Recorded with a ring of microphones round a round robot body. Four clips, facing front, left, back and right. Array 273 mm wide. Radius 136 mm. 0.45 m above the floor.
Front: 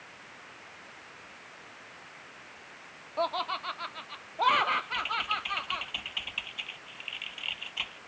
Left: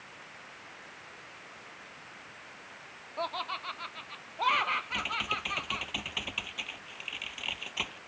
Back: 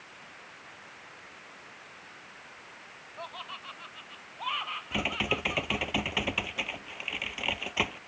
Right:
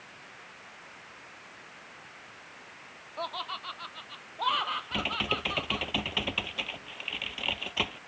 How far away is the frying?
I don't hear frying.